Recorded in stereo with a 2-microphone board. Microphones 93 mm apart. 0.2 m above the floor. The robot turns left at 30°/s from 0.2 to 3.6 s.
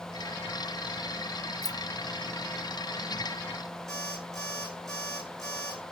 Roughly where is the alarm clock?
Centre.